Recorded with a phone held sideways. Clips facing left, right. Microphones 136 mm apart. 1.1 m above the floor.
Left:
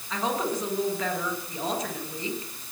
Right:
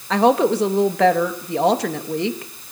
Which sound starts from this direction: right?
A woman speaking, at 0.1 s.